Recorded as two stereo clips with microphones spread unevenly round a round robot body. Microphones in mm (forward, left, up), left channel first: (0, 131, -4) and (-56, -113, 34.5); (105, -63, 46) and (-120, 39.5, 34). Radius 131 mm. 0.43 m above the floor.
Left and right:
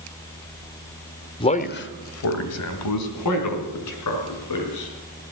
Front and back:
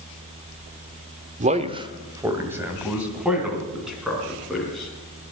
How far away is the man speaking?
About 0.9 m.